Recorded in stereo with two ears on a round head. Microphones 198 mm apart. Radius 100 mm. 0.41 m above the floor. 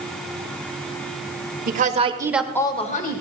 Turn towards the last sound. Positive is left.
turn(degrees=45)  # may be behind; listen again after turning